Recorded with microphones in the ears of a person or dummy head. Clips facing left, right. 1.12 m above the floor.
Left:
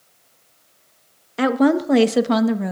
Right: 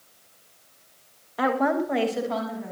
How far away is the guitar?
I don't hear a guitar.